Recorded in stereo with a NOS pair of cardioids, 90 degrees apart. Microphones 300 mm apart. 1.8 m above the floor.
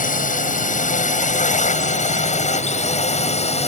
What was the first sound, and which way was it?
A drone, 25° left.